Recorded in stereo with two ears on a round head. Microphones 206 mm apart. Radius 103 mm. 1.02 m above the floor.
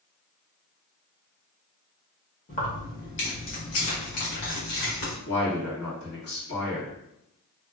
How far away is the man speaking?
About 1.8 m.